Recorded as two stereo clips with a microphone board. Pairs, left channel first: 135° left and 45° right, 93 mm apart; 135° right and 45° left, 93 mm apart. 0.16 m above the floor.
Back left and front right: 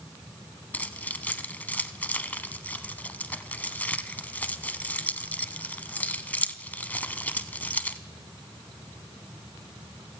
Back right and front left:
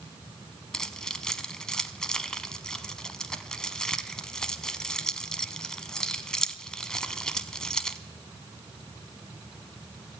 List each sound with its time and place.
0.7 s keys jangling: 160° left, 0.7 m